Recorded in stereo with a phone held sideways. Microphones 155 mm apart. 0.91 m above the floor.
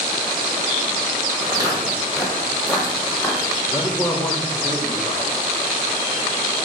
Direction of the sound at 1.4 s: 25° right (ahead or behind).